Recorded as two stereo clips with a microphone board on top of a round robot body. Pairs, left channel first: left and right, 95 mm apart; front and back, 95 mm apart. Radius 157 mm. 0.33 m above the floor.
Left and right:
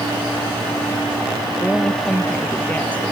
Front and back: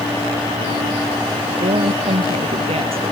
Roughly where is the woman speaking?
Behind.